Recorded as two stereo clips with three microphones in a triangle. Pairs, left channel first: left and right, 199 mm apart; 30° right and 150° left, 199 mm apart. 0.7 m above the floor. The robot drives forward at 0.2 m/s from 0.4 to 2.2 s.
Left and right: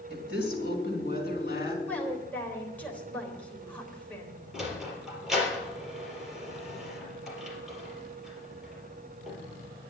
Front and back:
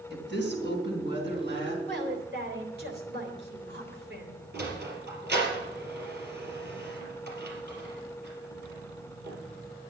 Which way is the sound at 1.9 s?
170° left.